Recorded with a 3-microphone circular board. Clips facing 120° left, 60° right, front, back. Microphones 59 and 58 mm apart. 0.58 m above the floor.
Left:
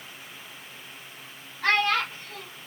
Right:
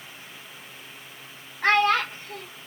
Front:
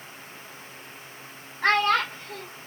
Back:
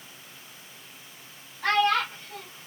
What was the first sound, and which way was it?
A child speaking, 15° right.